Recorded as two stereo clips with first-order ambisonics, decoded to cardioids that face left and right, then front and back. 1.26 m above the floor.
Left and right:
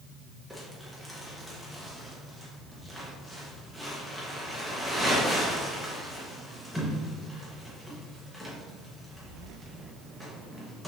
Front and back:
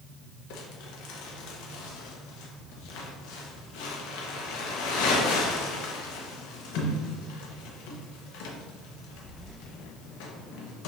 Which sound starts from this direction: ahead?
Crumpling, at 0.5 s.